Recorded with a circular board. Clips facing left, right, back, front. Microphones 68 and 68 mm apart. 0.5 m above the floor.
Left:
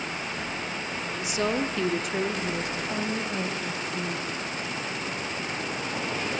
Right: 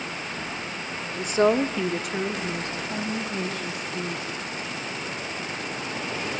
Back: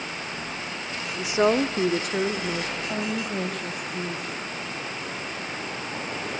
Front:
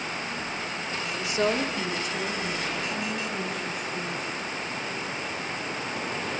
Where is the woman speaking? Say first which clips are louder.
Right 7 dB, back 5 dB; 105° right, 1.2 m; by 4.5 s 145° left, 4.5 m.